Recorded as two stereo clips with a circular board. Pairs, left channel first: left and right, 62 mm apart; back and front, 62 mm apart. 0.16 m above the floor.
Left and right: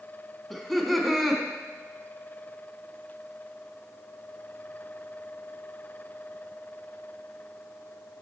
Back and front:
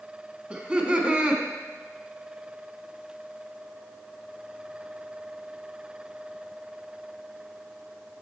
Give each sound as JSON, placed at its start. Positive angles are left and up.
{"t": 0.5, "sound": "laughter", "azimuth_deg": 5, "distance_m": 1.1}